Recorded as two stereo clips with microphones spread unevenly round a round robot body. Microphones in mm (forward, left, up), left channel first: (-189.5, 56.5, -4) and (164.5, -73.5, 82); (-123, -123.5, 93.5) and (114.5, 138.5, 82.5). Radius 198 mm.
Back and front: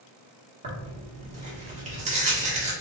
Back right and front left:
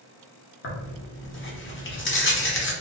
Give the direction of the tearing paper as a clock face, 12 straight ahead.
3 o'clock.